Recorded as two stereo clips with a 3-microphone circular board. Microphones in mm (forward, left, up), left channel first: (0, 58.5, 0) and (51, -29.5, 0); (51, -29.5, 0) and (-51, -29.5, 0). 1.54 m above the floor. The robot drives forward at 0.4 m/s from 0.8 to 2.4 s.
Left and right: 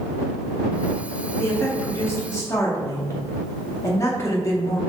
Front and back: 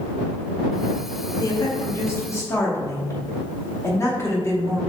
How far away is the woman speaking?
About 2.5 m.